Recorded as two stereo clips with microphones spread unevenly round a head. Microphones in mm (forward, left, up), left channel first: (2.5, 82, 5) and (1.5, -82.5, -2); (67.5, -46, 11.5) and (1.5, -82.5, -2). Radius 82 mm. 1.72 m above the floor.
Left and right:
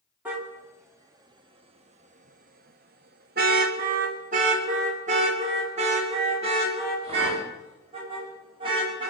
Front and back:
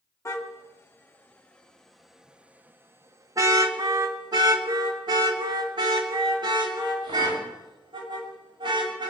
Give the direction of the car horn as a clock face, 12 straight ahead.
12 o'clock.